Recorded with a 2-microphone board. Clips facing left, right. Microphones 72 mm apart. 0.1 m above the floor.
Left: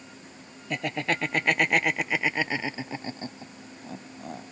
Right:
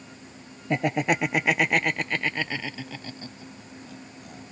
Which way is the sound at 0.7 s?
25° right (ahead or behind).